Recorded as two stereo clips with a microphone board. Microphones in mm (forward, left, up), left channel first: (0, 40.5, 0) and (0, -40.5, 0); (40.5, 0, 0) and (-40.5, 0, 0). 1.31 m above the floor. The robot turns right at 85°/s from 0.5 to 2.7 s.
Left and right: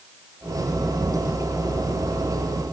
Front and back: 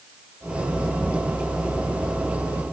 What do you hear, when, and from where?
Only background noise.